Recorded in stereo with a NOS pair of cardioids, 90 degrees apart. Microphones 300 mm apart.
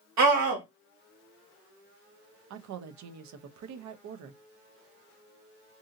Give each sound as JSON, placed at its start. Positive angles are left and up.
{"t": 0.2, "sound": "a scream", "azimuth_deg": -70, "distance_m": 1.7}
{"t": 2.5, "sound": "a woman speaking", "azimuth_deg": -70, "distance_m": 0.7}